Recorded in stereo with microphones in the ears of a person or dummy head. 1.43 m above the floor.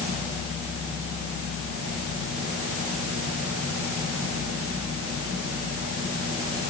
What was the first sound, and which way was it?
Only background noise.